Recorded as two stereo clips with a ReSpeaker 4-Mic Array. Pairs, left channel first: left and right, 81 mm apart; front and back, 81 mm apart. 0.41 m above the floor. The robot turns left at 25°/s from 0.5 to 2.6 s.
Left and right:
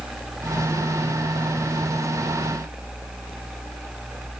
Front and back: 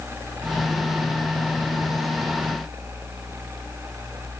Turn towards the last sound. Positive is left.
No sound to turn to.